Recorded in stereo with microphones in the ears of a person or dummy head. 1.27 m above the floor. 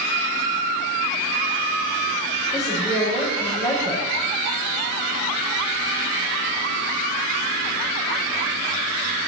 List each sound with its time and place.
2.5 s a woman speaking: 5° right (ahead or behind), 6 m